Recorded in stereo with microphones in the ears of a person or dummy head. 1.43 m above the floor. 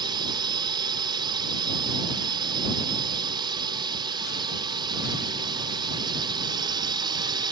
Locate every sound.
0.0 s a drone: 20° right (ahead or behind)